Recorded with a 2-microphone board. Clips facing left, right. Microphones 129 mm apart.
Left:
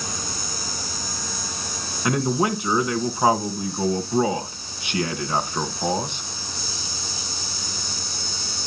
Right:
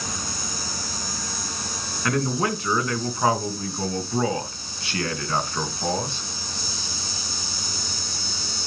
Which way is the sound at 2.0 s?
20° left (ahead or behind).